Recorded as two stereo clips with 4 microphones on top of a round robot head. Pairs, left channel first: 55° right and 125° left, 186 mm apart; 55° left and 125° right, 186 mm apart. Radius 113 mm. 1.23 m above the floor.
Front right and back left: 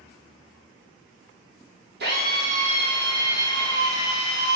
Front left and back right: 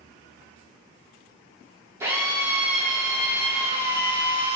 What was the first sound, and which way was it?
A drill, 155° left.